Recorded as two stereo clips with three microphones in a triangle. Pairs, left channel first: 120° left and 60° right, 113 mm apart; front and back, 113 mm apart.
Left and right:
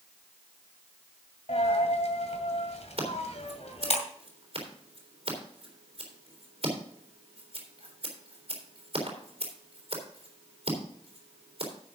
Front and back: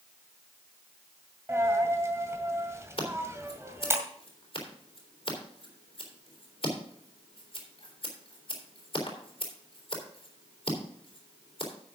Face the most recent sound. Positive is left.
turn(degrees=-35)